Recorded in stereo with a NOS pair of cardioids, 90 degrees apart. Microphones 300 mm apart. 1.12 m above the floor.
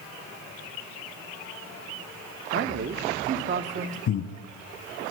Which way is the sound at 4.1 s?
65° left.